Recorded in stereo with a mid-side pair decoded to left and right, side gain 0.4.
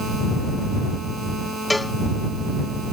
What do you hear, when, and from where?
1.7 s a cowbell: 15° left